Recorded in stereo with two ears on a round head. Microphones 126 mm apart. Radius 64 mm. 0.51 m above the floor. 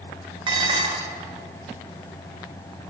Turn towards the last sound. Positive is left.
turn(degrees=-40)  # may be behind; listen again after turning